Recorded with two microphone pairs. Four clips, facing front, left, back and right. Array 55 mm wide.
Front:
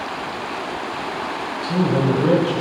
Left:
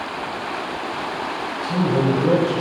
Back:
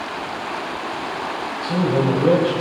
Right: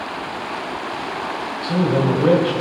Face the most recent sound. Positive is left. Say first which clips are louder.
# right 1 dB, even
turn(degrees=-115)